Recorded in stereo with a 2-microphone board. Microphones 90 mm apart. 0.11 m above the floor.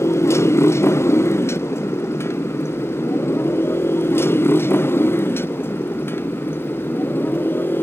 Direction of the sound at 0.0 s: 30° left (ahead or behind).